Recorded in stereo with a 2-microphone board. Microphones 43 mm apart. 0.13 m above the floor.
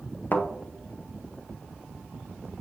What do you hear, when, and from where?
0.3 s a thud: 45° left (ahead or behind), 0.6 m